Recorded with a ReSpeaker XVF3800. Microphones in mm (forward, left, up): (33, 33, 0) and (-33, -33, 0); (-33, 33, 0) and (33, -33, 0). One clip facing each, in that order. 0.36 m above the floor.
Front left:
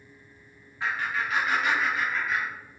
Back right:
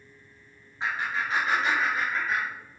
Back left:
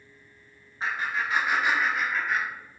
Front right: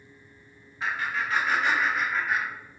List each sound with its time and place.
0.8 s laughter: 170° left, 1.5 m; by 2.5 s 120° right, 1.6 m